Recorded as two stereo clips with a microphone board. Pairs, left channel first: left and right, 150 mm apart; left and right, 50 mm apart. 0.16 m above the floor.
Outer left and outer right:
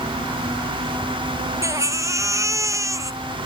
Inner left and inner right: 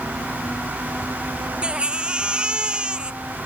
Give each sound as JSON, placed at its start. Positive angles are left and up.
{"t": 1.6, "sound": "a baby crying", "side_deg": -20}